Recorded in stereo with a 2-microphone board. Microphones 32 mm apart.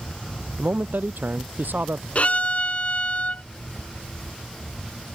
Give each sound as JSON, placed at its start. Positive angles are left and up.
{"t": 0.6, "sound": "a man speaking", "side_deg": -80}
{"t": 2.1, "sound": "a violin", "side_deg": 50}